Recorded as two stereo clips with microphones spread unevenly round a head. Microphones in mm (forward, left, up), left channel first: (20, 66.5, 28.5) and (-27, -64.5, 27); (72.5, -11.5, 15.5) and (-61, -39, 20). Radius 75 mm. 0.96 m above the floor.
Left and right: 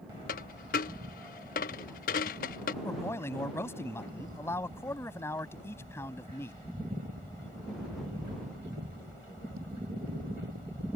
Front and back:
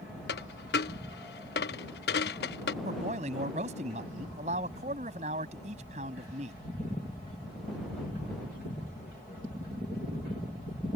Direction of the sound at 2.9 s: 145° left.